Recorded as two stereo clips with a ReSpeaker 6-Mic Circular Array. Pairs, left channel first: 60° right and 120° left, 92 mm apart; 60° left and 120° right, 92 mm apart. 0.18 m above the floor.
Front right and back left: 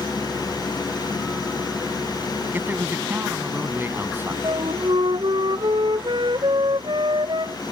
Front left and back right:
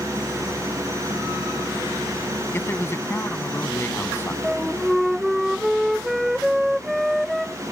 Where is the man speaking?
85° left.